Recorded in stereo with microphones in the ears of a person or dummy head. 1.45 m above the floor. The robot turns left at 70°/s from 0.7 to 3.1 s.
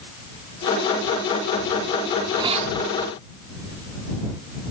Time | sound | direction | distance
2.1 | a hiss | 5° right | ?